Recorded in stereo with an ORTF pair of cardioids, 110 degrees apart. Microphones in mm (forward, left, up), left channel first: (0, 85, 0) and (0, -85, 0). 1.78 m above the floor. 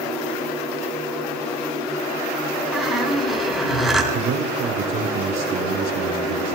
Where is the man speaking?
60° right, 1.2 m.